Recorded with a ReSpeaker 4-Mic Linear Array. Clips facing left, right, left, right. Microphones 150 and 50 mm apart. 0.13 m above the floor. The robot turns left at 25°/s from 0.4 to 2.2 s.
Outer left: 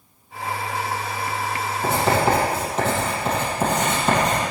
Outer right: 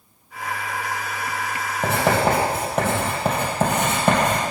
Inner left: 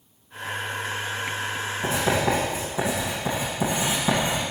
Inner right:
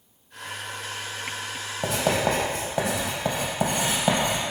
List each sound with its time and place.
1.8 s writing: 60° right (ahead or behind), 3.5 m; by 4.4 s 55° right (ahead or behind), 3.5 m